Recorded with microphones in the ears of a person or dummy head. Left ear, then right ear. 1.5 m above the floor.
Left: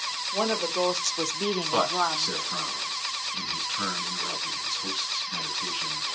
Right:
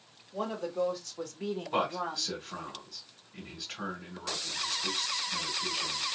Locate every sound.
0.3 s a woman speaking: 55° left (ahead or behind), 0.8 m; by 2.7 s 10° left (ahead or behind), 0.8 m
1.7 s a man speaking: 25° left (ahead or behind), 1.5 m